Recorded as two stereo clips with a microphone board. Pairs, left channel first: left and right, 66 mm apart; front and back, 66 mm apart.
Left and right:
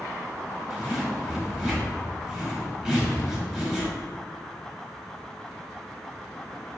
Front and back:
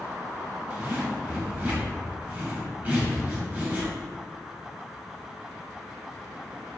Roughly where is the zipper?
Behind right.